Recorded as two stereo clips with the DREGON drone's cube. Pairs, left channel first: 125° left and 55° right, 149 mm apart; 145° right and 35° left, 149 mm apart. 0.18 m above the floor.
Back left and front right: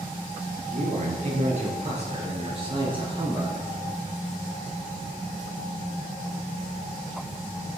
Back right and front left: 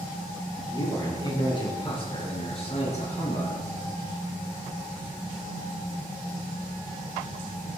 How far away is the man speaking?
About 5.5 m.